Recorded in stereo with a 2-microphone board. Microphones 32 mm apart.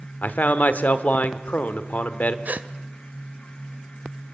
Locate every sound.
0.2 s a man speaking: 55° left (ahead or behind), 1.1 m
2.5 s a gasp: 55° right (ahead or behind), 0.7 m